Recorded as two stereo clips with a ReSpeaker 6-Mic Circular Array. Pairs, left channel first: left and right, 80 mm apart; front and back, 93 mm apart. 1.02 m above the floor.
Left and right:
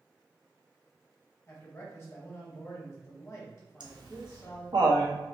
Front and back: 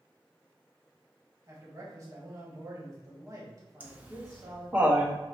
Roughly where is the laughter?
Right.